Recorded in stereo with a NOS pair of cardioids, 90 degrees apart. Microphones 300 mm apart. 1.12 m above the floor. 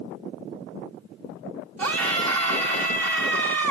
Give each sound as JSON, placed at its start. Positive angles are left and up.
{"t": 1.8, "sound": "a scream", "azimuth_deg": -55, "distance_m": 0.9}